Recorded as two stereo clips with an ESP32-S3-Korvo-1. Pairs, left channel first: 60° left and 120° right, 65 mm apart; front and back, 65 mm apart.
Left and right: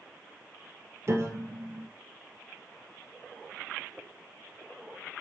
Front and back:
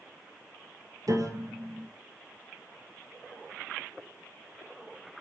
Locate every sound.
1.1 s a piano: 165° right, 2 m